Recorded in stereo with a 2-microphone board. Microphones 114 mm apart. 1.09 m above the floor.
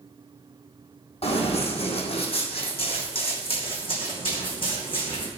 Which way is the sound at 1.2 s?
60° left (ahead or behind).